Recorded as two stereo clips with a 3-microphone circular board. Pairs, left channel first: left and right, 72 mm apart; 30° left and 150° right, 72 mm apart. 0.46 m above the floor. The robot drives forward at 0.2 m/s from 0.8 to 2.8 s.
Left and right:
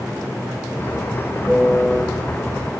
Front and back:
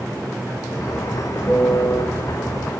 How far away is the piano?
About 0.8 m.